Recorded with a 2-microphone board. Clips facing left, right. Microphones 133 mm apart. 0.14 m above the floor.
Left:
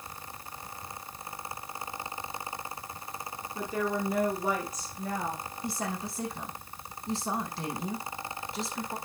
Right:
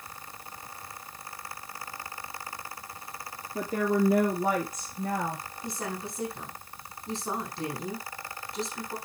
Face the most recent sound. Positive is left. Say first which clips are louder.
# left 1 dB
turn(degrees=5)  # may be behind; listen again after turning